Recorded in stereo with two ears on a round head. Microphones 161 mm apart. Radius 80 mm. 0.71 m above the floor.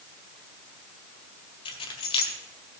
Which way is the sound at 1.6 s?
30° left (ahead or behind).